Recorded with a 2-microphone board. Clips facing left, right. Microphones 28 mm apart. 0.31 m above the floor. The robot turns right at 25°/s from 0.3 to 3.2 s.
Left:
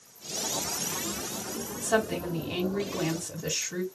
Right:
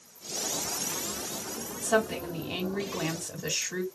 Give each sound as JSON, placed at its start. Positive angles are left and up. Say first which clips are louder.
{"t": 1.8, "sound": "a woman speaking", "louder": "even", "azimuth_deg": 170, "distance_m": 2.5}